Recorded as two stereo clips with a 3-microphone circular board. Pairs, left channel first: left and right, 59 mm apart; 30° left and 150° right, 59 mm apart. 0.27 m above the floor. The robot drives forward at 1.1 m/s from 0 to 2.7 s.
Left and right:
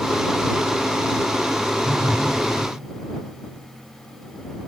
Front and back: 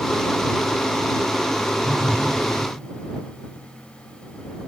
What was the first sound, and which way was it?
A phone buzzing, 85° left.